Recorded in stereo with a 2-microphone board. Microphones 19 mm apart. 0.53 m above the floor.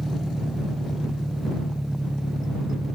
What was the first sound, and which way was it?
An engine running, 25° right (ahead or behind).